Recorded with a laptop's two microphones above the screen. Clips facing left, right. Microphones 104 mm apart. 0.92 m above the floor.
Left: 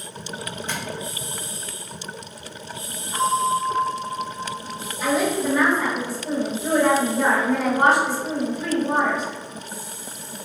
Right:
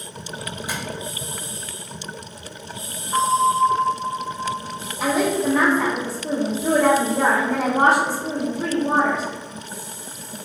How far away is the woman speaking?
About 1.6 m.